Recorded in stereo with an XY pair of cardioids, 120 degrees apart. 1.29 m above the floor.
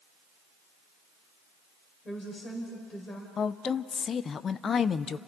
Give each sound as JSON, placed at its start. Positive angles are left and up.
{"t": 2.0, "sound": "a woman speaking", "azimuth_deg": 30, "distance_m": 4.5}
{"t": 3.4, "sound": "a woman speaking", "azimuth_deg": 40, "distance_m": 0.6}